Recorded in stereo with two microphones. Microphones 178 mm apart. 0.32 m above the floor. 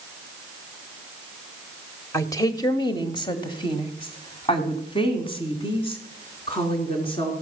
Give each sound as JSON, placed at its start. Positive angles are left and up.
{"t": 2.1, "sound": "a woman speaking", "side_deg": 20, "distance_m": 1.2}